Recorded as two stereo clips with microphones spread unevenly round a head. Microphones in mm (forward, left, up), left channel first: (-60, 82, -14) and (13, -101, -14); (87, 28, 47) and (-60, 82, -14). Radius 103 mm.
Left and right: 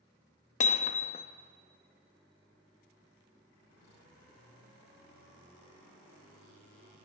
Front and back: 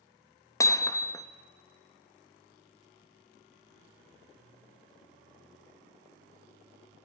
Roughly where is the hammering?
Ahead left.